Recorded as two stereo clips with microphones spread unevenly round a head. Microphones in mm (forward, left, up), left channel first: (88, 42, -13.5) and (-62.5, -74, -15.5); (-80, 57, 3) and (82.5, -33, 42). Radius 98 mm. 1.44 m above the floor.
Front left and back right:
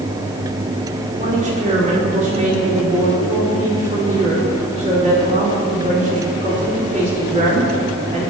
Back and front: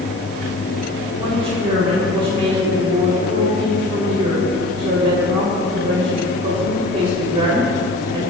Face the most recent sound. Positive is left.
turn(degrees=-90)